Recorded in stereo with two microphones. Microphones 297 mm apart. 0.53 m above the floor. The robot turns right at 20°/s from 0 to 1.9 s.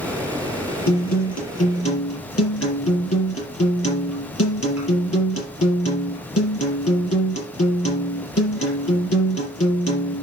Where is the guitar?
70° left (ahead or behind), 5 m; by 10.2 s 50° left (ahead or behind), 5 m.